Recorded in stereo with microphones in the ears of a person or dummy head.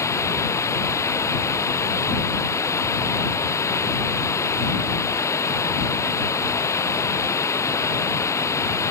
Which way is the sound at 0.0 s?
15° left (ahead or behind).